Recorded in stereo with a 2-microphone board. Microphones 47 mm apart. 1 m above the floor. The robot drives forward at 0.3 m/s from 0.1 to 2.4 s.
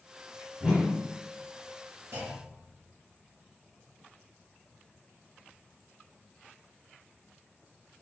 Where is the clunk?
80° right, 1.8 m.